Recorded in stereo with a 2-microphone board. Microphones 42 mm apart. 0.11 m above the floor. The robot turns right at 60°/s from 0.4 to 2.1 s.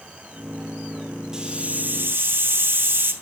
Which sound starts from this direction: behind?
A hiss, at 1.3 s.